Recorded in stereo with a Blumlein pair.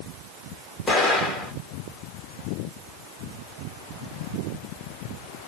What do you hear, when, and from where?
0.9 s an explosion: 10° left, 2 m